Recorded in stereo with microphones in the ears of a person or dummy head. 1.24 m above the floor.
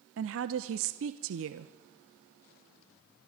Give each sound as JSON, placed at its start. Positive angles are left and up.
{"t": 0.2, "sound": "a woman speaking", "side_deg": -65, "distance_m": 0.9}